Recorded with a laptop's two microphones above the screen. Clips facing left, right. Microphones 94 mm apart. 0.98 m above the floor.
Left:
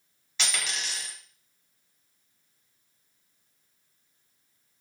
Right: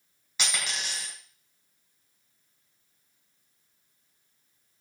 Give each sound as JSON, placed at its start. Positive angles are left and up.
{"t": 0.4, "sound": "a dropped coin", "side_deg": -10, "distance_m": 1.6}